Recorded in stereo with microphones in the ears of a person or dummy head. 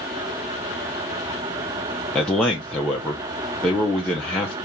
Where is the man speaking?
5° left (ahead or behind), 0.7 m.